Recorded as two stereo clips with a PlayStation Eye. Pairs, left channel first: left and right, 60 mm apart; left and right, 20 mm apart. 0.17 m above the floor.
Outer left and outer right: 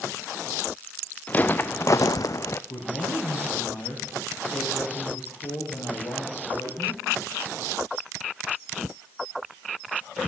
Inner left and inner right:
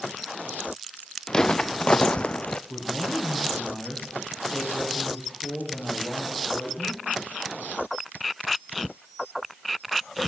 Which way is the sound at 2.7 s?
80° left.